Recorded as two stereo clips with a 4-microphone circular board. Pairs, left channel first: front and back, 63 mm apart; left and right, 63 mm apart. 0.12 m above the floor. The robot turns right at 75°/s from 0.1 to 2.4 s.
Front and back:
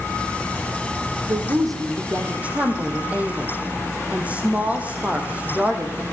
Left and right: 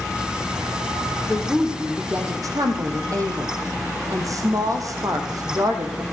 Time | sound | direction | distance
1.3 | a woman speaking | 160° left | 5 m